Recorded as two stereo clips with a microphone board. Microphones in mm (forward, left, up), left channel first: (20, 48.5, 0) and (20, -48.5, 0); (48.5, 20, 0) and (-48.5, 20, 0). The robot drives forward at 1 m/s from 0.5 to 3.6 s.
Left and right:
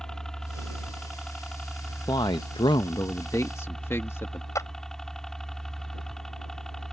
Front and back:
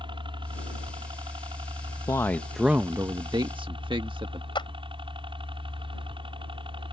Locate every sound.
0.0 s a helicopter: 175° left
2.1 s a man speaking: 50° left; by 4.5 s 150° left
4.5 s a clap: 35° left